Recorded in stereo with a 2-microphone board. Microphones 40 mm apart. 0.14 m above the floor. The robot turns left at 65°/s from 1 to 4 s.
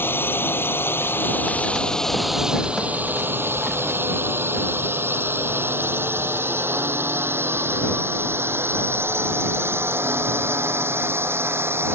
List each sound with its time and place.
0.0 s a drone: 60° left (ahead or behind); by 12.0 s 80° right